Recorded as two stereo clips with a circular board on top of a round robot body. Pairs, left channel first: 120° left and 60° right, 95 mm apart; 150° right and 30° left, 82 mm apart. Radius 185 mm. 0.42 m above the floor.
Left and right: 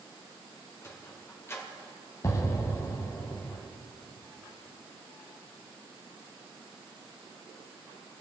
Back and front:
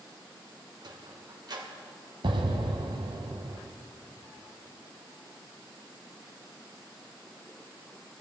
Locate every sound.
0.8 s a sliding door: 60° left, 1.8 m
2.2 s an explosion: 60° left, 0.9 m